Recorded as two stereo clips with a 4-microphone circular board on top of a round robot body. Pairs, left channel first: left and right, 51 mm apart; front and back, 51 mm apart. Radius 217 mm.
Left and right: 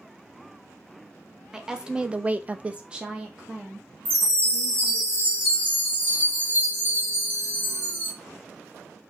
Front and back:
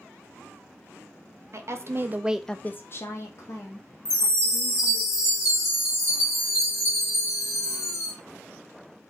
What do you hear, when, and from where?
1.5 s a woman speaking: 170° right, 0.7 m; by 5.0 s 10° right, 1.6 m
4.0 s a chime: 35° right, 1.3 m